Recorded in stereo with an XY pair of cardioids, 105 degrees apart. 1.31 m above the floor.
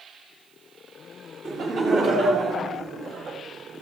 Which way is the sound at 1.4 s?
50° right.